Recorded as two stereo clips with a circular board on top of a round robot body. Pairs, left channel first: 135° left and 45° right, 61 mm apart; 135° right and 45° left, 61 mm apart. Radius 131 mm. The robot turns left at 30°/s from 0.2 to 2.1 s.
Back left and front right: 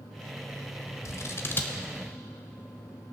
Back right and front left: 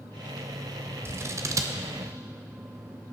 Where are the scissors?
95° left, 0.8 m; by 1.8 s 75° left, 0.8 m.